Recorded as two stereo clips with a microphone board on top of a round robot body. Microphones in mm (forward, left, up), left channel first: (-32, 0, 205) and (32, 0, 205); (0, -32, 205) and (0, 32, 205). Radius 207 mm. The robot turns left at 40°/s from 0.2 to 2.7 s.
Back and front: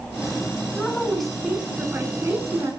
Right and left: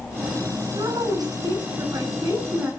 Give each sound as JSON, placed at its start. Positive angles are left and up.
{"t": 0.8, "sound": "a woman speaking", "azimuth_deg": 110, "distance_m": 7.5}